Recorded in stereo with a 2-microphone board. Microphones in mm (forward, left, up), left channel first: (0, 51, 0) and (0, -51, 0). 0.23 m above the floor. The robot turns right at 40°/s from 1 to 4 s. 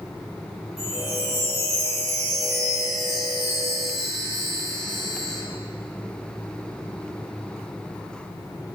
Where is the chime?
100° left, 5.5 m; by 5.4 s 140° right, 5.5 m.